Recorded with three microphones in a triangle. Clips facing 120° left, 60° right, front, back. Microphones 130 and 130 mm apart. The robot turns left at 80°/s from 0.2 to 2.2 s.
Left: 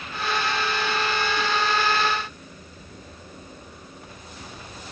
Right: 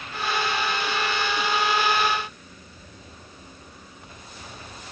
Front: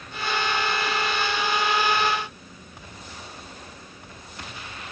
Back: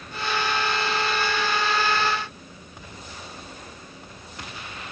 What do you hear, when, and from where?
Only background noise.